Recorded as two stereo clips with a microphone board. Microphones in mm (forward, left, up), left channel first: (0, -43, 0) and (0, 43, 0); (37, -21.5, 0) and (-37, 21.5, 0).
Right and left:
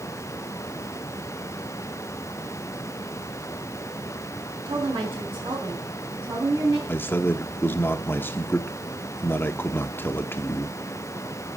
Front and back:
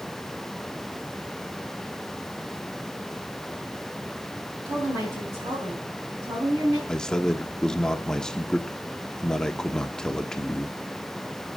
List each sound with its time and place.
4.7 s a woman speaking: 105° left, 3.5 m; by 6.8 s 130° left, 4.5 m
6.9 s a man speaking: 100° right, 0.8 m